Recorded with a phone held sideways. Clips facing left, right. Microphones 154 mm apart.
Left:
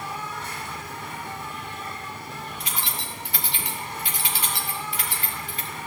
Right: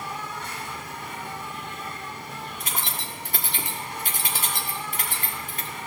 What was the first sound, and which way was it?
An insect, 15° right (ahead or behind).